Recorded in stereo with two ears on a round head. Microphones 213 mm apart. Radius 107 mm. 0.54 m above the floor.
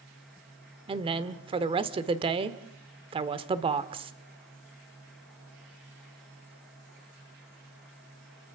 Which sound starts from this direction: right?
A woman speaking, at 0.9 s.